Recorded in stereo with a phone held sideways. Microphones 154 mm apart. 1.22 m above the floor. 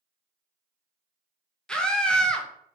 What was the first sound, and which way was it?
A scream, 5° left (ahead or behind).